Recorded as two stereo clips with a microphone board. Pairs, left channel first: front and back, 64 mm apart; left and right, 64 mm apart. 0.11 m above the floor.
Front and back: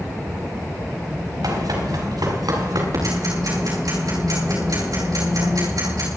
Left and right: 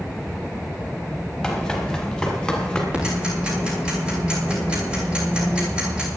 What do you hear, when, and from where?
1.4 s running footsteps: 175° left, 7 m; by 2.8 s 170° left, 7.5 m
2.9 s ticking: 165° right, 7 m